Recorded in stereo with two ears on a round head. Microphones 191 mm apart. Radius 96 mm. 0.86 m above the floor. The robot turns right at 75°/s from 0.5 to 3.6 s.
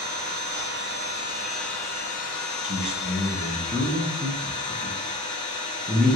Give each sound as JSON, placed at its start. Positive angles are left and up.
{"t": 0.0, "sound": "an engine running", "azimuth_deg": -80, "distance_m": 1.8}
{"t": 2.6, "sound": "a man speaking", "side_deg": -30, "distance_m": 0.8}